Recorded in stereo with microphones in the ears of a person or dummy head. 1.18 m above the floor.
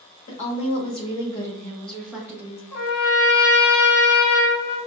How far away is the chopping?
No chopping in this recording.